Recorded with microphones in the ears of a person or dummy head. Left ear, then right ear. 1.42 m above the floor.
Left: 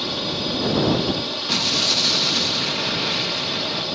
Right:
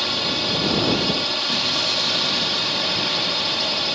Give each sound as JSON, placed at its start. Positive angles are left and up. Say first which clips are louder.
{"t": 0.0, "sound": "a drone", "louder": "right 3 dB", "side_deg": -50}
{"t": 1.5, "sound": "an explosion", "louder": "left 5 dB", "side_deg": 20}